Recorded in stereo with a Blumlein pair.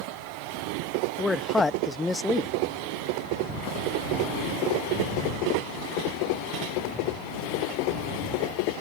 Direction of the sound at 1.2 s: 10° left.